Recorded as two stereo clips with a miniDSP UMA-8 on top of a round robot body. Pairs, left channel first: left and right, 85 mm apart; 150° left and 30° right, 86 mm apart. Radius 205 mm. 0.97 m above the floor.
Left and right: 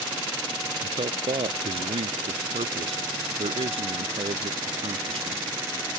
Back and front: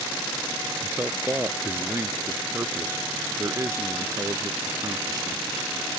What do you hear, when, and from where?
0.8 s a man speaking: 100° right; by 5.4 s 80° right